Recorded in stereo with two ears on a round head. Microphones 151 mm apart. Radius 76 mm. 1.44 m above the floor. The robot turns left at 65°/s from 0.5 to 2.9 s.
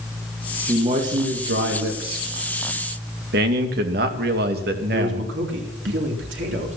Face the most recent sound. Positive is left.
turn(degrees=-75)  # may be behind; listen again after turning